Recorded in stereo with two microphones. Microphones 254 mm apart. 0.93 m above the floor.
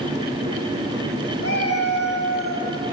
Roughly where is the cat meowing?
Left.